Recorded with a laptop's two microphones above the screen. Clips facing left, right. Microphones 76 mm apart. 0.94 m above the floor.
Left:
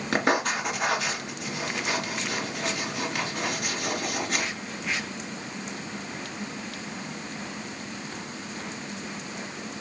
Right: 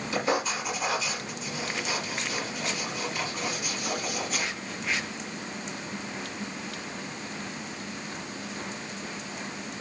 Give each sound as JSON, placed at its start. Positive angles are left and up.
{"t": 0.1, "sound": "writing", "side_deg": 70, "distance_m": 4.0}